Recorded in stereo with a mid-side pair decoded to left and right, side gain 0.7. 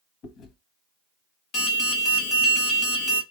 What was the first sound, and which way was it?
Chewing, 50° left.